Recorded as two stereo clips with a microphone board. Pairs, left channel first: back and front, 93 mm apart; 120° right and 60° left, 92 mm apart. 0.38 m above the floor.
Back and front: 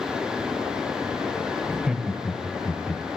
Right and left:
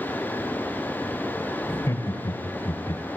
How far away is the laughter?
About 1.1 m.